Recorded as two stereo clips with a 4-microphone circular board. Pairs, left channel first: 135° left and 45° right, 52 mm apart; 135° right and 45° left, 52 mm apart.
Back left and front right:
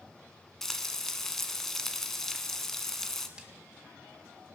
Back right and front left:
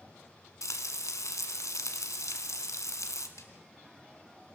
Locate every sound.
0.6 s frying: 145° right, 1.5 m
3.4 s a snare drum: 120° right, 2 m